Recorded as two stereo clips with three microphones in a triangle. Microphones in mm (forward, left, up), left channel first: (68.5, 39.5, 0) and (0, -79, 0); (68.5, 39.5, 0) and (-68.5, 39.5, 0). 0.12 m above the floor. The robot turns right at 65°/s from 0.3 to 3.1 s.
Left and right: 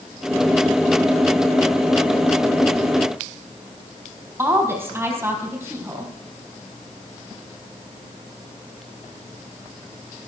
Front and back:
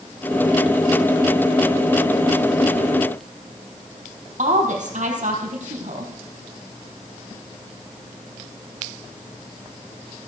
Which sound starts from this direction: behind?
A woman speaking, at 4.4 s.